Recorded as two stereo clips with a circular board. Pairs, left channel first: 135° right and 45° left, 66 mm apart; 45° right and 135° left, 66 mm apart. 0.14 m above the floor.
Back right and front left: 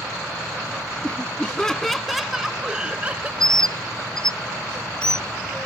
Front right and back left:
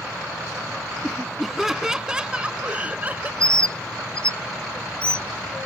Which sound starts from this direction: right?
A bird, at 3.4 s.